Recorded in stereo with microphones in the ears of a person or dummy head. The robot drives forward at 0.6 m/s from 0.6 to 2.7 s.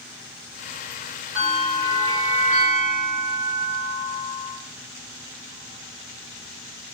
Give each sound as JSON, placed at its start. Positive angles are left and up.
{"t": 1.4, "sound": "a bell", "side_deg": -40, "distance_m": 1.3}